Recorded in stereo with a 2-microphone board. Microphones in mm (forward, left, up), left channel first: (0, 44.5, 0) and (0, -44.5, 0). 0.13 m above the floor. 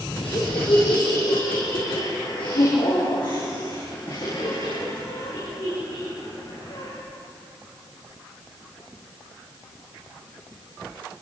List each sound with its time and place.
0.2 s laughter: 70° left (ahead or behind), 4.5 m; by 6.9 s 55° left (ahead or behind), 14 m